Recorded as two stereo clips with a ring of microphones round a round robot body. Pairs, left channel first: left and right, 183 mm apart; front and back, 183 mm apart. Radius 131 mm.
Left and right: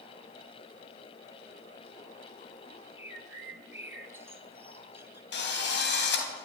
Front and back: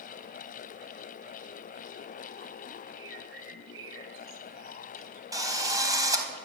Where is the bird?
165° right, 2.5 m.